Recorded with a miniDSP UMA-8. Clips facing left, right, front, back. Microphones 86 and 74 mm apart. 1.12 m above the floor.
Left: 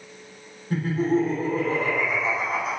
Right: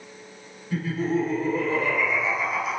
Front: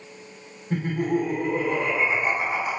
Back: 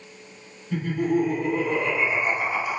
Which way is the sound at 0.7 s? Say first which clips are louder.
Left 3 dB, back 1 dB; 40° left.